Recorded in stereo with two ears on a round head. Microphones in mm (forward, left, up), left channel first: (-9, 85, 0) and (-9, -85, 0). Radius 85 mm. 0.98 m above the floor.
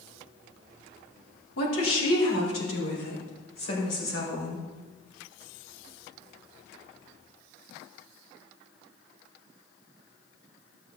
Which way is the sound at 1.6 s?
75° left (ahead or behind).